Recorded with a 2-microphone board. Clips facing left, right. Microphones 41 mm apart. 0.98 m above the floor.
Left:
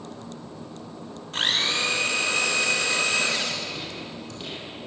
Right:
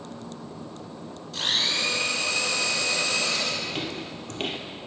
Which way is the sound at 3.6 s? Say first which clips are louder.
Right 2 dB; 60° right (ahead or behind).